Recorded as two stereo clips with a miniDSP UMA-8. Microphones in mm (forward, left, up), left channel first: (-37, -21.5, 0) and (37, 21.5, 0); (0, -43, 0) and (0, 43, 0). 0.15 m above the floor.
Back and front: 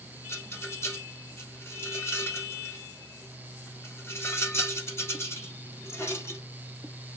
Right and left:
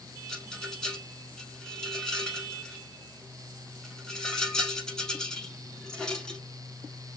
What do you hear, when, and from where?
0.3 s a rattle: 165° right, 0.9 m